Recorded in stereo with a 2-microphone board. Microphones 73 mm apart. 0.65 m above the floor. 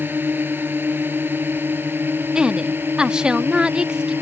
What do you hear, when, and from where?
0.0 s a drone: 25° right (ahead or behind); by 4.2 s 30° right (ahead or behind)
2.4 s a woman speaking: 10° right (ahead or behind)